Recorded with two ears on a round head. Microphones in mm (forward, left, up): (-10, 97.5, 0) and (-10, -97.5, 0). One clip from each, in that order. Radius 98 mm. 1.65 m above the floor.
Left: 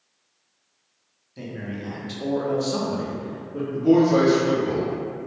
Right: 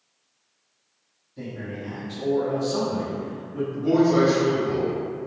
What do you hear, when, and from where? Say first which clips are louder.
1.4 s a man speaking: even; 70° left (ahead or behind), 0.8 m; by 3.6 s 15° left (ahead or behind), 0.8 m
3.7 s a man speaking: left 2 dB; 5° left (ahead or behind), 0.9 m